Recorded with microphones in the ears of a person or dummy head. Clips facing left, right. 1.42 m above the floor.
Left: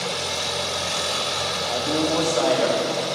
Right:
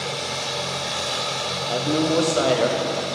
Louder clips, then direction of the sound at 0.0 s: Left 1 dB; 5° right (ahead or behind).